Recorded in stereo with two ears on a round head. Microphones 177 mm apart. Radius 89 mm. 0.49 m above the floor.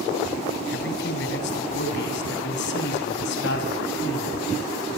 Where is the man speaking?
60° left (ahead or behind), 3.5 m.